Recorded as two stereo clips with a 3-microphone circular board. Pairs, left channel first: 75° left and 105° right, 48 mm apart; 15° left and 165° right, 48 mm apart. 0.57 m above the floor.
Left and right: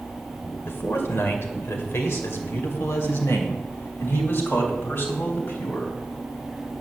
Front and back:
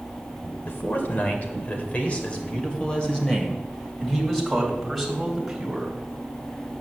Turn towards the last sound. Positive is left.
turn(degrees=110)